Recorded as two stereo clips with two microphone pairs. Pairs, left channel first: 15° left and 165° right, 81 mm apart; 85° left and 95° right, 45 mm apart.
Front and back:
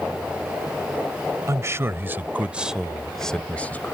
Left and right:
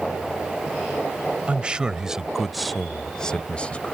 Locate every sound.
1.5 s a man speaking: 140° right; by 3.9 s 60° left